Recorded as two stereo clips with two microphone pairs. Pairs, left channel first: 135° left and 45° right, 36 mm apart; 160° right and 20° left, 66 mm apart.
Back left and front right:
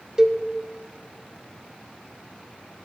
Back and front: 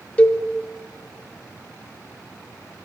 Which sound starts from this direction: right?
A cowbell, at 0.2 s.